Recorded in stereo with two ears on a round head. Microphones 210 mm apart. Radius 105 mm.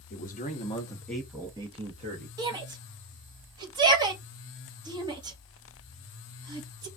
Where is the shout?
20° right (ahead or behind), 1.0 m.